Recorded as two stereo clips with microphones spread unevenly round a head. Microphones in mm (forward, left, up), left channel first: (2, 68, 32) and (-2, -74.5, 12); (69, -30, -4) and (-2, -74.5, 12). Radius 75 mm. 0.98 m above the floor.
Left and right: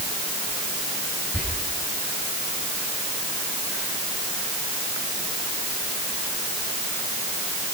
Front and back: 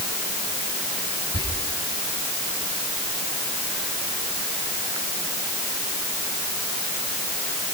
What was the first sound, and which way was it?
Whispering, 10° left.